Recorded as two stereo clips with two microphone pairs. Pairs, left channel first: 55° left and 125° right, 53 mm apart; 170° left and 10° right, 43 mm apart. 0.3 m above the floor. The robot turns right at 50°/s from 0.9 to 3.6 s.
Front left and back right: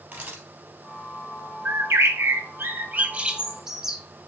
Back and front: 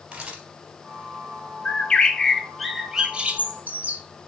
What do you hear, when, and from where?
0.1 s a camera shutter: 70° right, 2.5 m
1.6 s a bird: 145° right, 0.6 m; by 4.0 s 45° right, 0.6 m